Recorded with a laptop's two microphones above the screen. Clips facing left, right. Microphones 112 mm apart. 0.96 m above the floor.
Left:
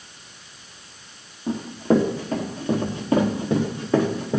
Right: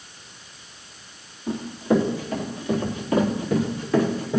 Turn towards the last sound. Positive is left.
turn(degrees=25)  # may be behind; listen again after turning